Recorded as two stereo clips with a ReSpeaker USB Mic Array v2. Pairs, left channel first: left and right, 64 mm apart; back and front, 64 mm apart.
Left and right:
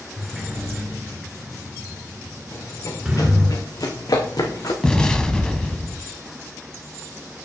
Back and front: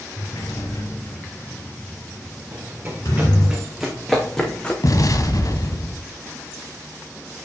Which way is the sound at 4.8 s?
170° left.